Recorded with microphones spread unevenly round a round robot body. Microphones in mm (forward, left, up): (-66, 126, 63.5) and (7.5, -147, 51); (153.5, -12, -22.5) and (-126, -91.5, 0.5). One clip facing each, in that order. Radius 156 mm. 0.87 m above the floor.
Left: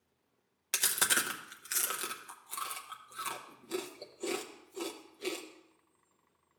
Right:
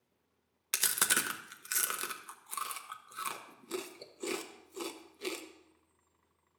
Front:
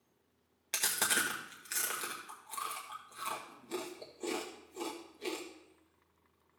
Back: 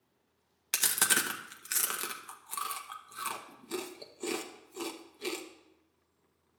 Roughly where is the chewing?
Behind right.